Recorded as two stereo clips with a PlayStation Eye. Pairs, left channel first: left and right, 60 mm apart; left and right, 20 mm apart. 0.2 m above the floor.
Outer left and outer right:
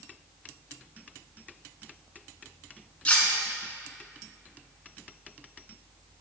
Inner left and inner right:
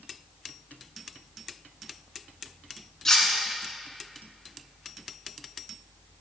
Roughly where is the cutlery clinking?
Left.